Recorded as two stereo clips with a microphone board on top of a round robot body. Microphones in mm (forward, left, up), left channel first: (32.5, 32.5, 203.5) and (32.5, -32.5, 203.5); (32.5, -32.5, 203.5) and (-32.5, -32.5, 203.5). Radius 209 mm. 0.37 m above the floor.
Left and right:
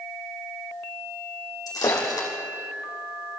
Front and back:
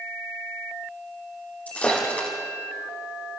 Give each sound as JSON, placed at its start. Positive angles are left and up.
{"t": 1.7, "sound": "breaking glass", "azimuth_deg": 70, "distance_m": 4.0}